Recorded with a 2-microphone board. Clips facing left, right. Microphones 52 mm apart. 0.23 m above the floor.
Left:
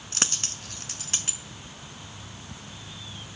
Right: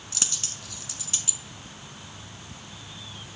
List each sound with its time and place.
0.1 s a dropped coin: 50° left (ahead or behind), 0.5 m